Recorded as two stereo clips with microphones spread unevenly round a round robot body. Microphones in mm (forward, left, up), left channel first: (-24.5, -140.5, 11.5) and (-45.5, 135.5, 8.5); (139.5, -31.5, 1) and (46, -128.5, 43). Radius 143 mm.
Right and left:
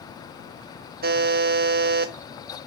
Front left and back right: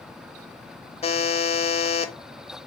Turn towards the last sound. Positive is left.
turn(degrees=40)